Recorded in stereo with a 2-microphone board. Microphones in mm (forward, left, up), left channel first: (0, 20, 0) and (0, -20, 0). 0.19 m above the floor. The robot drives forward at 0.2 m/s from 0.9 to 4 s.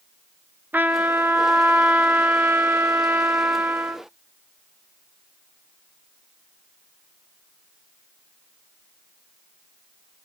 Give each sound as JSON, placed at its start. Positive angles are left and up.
{"t": 0.7, "sound": "a trumpet", "side_deg": -55, "distance_m": 0.6}